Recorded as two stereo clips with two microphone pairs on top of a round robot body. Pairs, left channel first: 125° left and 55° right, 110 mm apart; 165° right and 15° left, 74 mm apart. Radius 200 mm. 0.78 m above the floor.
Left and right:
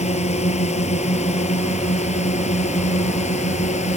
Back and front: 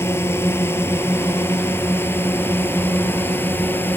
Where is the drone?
140° left; by 4.0 s 135° left.